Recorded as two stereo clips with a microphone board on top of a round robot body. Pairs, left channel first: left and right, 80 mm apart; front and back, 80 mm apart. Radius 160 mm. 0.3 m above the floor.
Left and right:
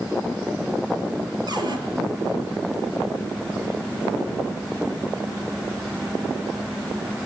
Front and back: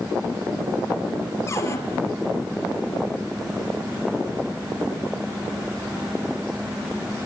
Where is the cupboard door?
55° right, 4 m.